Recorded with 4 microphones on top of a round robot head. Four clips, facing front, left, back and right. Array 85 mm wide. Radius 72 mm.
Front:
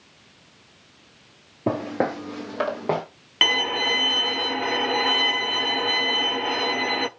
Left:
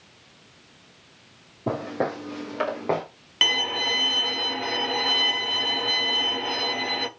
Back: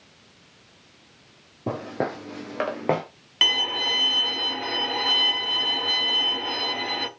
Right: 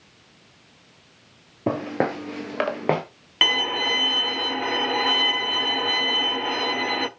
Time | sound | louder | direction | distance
1.7 | footsteps | right 3 dB, front 4 dB | 55° right | 1.3 m
3.4 | a violin | right 2 dB, front 3 dB | 45° right | 0.8 m